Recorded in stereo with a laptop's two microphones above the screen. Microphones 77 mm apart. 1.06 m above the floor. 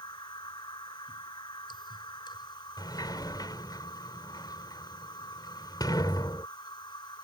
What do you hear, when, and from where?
0.0 s a machine running: 75° left (ahead or behind)
2.8 s a sliding door: 60° left (ahead or behind)